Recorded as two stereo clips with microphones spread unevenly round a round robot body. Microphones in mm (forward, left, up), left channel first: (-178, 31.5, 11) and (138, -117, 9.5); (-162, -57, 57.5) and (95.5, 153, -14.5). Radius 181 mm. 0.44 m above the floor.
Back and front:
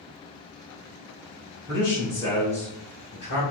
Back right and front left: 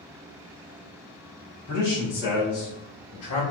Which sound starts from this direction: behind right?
A man speaking, at 1.7 s.